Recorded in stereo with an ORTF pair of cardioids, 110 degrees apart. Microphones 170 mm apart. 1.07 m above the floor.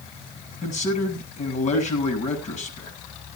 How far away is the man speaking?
About 6.5 m.